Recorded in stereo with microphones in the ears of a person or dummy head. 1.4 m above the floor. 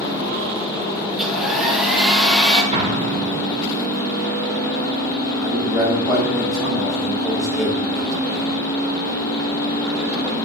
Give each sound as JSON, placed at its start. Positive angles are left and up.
{"t": 1.1, "sound": "a hair dryer", "side_deg": 0, "distance_m": 1.8}
{"t": 2.7, "sound": "an explosion", "side_deg": -30, "distance_m": 1.6}
{"t": 5.4, "sound": "a man speaking", "side_deg": 0, "distance_m": 4.0}